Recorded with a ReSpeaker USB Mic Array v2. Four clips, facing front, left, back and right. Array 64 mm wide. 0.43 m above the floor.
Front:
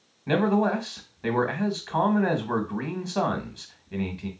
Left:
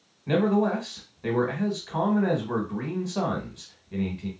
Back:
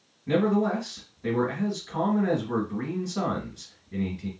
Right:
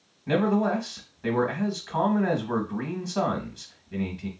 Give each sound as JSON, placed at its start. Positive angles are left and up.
{"t": 0.3, "sound": "a man speaking", "azimuth_deg": 0, "distance_m": 1.2}